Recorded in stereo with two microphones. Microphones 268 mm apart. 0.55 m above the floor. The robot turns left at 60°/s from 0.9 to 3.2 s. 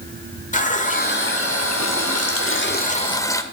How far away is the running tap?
About 1.0 m.